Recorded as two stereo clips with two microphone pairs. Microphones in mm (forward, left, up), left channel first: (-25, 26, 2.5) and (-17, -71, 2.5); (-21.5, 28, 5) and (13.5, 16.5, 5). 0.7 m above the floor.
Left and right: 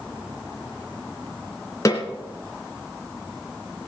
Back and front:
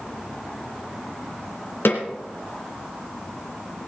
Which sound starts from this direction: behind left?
A snare drum, at 1.9 s.